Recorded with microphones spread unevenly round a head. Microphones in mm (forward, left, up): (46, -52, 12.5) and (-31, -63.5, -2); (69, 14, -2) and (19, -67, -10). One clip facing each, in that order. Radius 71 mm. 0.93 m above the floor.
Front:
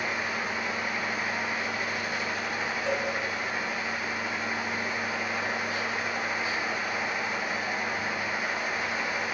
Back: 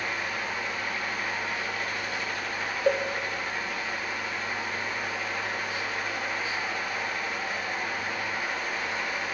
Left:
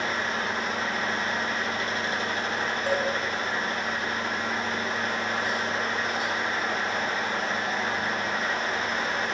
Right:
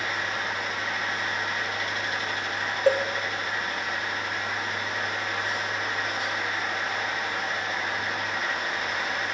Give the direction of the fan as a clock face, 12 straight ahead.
9 o'clock.